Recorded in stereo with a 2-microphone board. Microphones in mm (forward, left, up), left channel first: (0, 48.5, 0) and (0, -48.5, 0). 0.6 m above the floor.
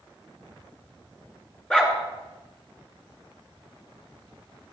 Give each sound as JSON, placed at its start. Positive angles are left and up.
{"t": 1.7, "sound": "a dog barking", "side_deg": 10, "distance_m": 2.5}